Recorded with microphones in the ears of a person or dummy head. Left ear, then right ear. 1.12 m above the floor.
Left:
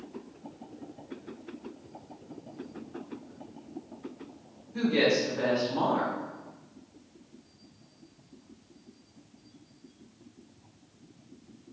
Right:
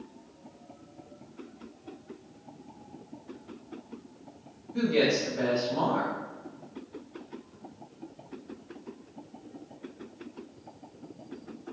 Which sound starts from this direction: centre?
A woman speaking, at 4.7 s.